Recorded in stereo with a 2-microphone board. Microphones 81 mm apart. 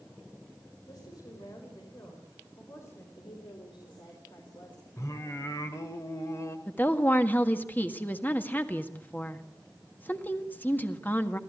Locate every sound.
0.9 s a woman speaking: 55° left (ahead or behind), 5 m; by 3.1 s 35° left (ahead or behind), 4.5 m
3.2 s a woman speaking: 80° left, 5 m
5.0 s singing: 40° left (ahead or behind), 1.9 m
6.7 s a woman speaking: 25° left (ahead or behind), 1.5 m